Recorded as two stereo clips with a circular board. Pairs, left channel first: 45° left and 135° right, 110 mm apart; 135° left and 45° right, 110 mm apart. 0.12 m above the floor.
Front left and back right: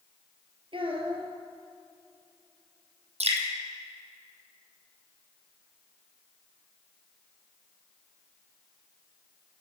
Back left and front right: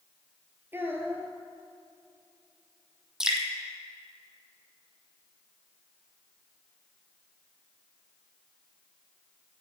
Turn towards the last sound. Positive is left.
turn(degrees=-130)